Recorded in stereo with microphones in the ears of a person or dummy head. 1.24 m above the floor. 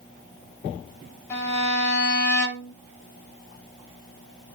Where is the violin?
15° left (ahead or behind), 3.5 m.